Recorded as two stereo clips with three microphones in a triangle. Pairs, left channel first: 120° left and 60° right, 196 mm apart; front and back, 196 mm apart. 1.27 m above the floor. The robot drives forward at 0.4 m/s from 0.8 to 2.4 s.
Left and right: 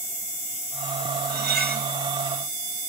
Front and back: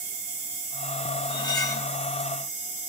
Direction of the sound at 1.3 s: 55° right.